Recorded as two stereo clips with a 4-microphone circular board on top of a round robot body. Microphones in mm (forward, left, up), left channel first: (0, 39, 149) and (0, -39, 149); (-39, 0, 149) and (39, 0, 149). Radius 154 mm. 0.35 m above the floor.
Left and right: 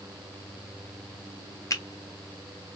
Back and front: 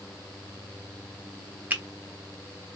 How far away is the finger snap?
About 1.1 m.